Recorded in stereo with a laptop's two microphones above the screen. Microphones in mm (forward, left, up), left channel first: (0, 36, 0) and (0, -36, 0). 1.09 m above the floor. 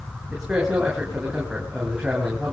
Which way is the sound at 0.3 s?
15° right (ahead or behind).